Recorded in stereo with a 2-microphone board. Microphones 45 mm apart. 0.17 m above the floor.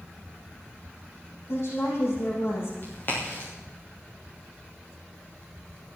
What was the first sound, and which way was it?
A woman speaking, 60° left (ahead or behind).